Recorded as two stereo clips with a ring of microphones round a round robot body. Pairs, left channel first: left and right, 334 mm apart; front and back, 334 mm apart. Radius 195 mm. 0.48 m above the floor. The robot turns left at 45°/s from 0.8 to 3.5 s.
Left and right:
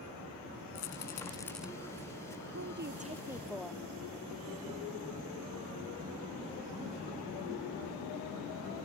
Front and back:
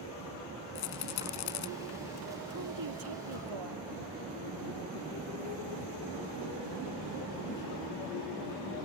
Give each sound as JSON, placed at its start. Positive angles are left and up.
{"t": 0.8, "sound": "a rattle", "azimuth_deg": 35}
{"t": 2.5, "sound": "a woman speaking", "azimuth_deg": -135}